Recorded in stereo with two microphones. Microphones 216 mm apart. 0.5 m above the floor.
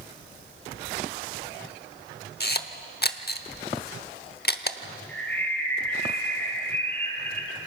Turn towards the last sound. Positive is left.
turn(degrees=10)  # may be behind; listen again after turning